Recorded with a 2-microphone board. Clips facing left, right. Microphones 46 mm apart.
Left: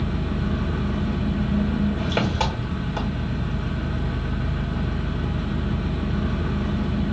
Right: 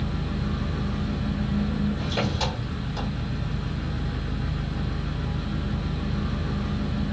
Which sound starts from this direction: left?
An engine running, at 0.0 s.